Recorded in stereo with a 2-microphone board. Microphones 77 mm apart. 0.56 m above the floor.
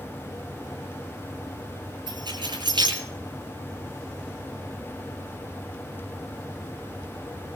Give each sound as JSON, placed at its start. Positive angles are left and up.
{"t": 2.1, "sound": "keys jangling", "side_deg": -85, "distance_m": 8.5}